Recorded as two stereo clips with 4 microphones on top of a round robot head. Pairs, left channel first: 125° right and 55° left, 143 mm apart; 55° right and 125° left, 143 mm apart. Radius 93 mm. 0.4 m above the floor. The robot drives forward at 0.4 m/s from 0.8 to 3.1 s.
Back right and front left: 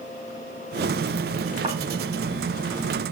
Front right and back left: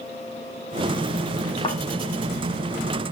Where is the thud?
5° left, 6.5 m.